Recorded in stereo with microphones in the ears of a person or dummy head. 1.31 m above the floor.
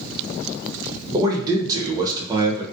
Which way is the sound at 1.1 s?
25° right (ahead or behind).